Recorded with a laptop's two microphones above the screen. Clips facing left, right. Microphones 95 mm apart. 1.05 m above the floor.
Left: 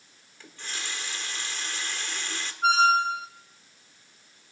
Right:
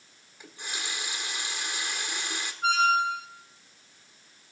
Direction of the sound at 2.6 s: 30° left (ahead or behind).